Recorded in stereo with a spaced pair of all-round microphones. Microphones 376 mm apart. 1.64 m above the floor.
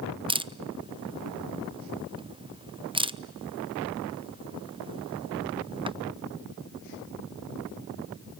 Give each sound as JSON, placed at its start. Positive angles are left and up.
{"t": 0.3, "sound": "a camera shutter", "side_deg": -15, "distance_m": 0.6}